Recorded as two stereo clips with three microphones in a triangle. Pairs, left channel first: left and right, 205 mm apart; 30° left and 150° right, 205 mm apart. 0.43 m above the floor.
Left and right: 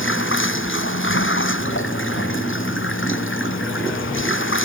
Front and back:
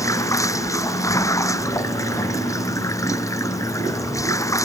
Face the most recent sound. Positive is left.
turn(degrees=105)